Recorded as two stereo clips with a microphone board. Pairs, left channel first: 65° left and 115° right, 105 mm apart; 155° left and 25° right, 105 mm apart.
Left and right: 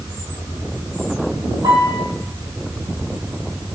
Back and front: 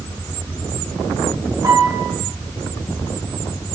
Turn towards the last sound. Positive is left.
turn(degrees=-75)